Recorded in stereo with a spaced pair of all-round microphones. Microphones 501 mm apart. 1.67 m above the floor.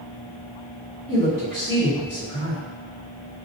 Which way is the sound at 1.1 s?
25° right (ahead or behind).